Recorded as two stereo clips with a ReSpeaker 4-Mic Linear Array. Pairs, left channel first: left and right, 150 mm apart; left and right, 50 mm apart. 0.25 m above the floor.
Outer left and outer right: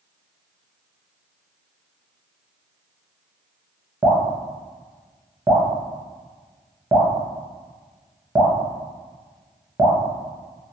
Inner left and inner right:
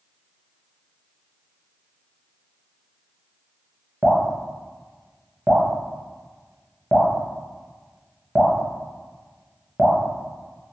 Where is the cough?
No cough in this recording.